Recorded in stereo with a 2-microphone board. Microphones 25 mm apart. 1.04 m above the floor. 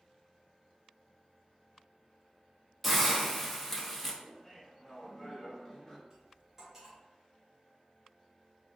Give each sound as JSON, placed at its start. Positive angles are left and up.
{"t": 2.8, "sound": "a hiss", "side_deg": 0, "distance_m": 0.6}
{"t": 4.2, "sound": "laughter", "side_deg": 25, "distance_m": 1.0}
{"t": 6.1, "sound": "cutlery clinking", "side_deg": -20, "distance_m": 1.2}